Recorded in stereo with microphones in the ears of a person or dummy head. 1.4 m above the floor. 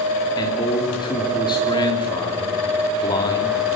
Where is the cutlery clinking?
I don't hear cutlery clinking.